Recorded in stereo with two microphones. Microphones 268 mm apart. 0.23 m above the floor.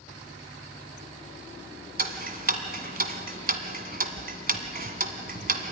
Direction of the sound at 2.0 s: 35° right (ahead or behind).